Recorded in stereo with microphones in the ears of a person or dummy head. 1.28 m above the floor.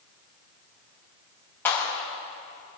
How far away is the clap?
About 5 m.